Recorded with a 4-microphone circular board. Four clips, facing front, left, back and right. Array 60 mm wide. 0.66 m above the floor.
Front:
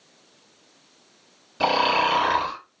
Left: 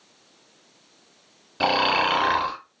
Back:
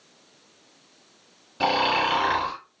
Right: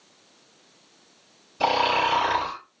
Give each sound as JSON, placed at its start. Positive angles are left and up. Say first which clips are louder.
{"t": 1.6, "sound": "snoring", "louder": "even, front 2 dB", "azimuth_deg": 90, "distance_m": 1.4}